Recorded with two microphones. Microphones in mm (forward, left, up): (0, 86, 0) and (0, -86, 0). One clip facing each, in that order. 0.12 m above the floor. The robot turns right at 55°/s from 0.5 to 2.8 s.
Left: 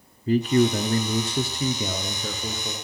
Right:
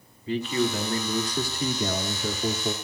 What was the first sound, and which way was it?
A man speaking, 95° left.